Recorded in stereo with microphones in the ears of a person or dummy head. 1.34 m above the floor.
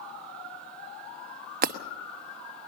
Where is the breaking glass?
45° right (ahead or behind), 0.9 m.